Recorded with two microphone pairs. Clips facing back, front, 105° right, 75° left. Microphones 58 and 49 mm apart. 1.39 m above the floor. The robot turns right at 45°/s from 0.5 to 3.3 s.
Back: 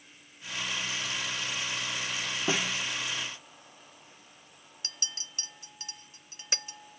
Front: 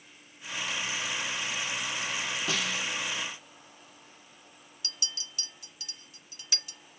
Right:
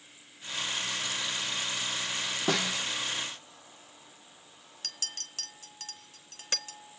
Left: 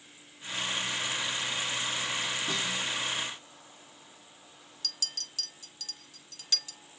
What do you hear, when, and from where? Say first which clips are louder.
2.5 s a snare drum: back 3 dB, right 3 dB; 115° right, 1.0 m; by 2.8 s 100° right, 1.0 m
4.8 s a clink: front 1 dB, left 1 dB; 140° right, 0.8 m